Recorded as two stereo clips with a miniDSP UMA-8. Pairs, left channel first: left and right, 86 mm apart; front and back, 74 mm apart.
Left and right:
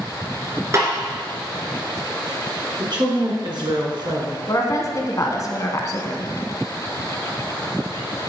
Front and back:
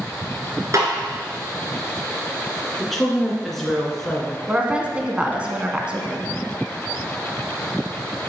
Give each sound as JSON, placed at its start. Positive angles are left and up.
{"t": 0.7, "sound": "a snare drum", "azimuth_deg": -140, "distance_m": 2.0}
{"t": 2.8, "sound": "a woman speaking", "azimuth_deg": -85, "distance_m": 2.5}
{"t": 4.5, "sound": "a woman speaking", "azimuth_deg": 115, "distance_m": 1.3}